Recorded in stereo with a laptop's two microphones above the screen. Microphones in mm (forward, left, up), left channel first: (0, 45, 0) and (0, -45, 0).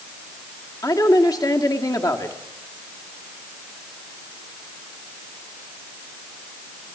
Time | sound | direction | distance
0.8 | a woman speaking | 45° left (ahead or behind) | 1.6 m